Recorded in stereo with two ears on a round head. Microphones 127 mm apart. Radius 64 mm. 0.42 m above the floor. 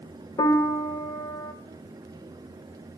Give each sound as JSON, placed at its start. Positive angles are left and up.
{"t": 0.4, "sound": "a piano", "side_deg": 25, "distance_m": 0.8}